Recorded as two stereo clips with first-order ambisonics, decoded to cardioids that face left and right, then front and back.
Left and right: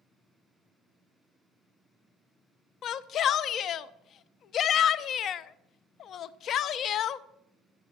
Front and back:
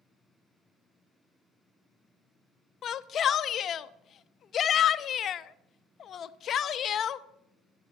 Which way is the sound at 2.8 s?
50° left.